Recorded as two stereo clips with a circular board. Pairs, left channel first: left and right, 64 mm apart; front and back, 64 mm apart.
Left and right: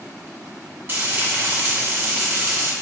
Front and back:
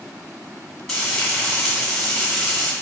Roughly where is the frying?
Right.